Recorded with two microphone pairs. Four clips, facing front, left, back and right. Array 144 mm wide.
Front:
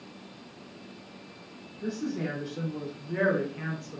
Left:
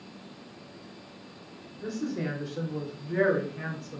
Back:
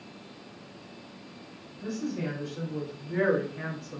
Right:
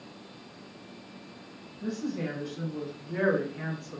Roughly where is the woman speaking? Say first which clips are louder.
Left 1 dB, front 1 dB; left.